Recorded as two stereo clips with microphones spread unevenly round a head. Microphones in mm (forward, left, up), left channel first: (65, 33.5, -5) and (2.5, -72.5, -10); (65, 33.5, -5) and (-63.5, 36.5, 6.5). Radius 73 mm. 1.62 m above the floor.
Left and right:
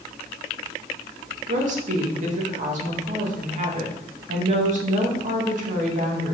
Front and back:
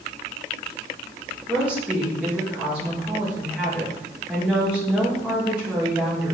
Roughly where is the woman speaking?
Right.